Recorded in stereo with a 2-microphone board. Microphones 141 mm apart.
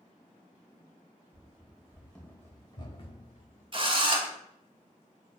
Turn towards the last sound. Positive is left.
turn(degrees=-40)  # may be behind; listen again after turning